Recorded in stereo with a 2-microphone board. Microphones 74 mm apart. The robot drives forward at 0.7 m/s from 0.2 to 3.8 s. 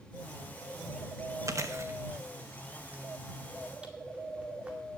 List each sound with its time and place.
1.5 s chewing: 50° right (ahead or behind), 0.9 m; by 4.8 s 20° right (ahead or behind), 2 m